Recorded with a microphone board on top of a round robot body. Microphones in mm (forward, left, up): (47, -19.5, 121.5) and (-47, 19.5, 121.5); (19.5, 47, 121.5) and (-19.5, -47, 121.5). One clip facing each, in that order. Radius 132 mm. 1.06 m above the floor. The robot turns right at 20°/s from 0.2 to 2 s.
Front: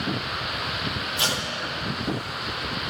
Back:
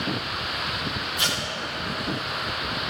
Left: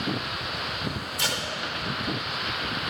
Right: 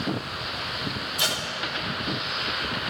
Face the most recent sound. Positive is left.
turn(degrees=-65)